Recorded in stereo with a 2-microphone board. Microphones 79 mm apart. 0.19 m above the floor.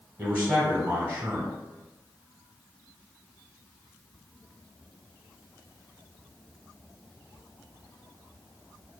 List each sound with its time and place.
0.2 s a man speaking: 20° right (ahead or behind), 1.0 m